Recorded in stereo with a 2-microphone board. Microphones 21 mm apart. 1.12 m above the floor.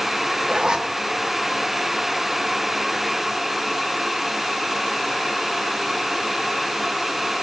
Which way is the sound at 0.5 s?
40° right (ahead or behind).